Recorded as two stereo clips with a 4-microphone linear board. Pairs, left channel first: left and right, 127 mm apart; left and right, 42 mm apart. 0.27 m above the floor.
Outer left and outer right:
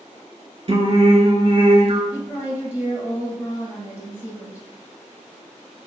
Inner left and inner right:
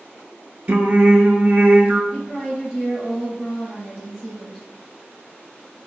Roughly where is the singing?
Right.